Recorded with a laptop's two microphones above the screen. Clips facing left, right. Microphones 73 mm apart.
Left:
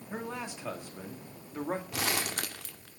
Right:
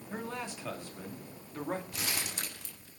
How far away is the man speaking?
About 2.5 m.